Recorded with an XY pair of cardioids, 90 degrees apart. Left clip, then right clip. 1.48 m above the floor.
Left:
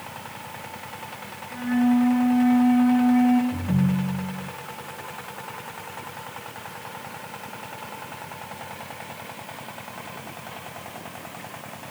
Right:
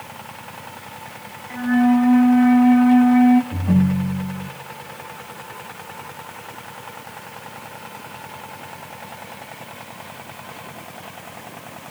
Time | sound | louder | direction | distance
1.5 | a flute | right 5 dB | 60° right | 1.3 m
3.5 | a ringtone | right 5 dB | 65° right | 1.5 m